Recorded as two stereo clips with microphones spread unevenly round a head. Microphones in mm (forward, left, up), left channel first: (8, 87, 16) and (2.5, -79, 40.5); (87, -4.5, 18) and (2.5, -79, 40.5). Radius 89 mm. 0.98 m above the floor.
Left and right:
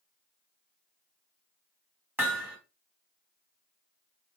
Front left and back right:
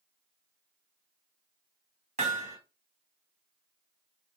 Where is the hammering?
165° right, 1.2 m.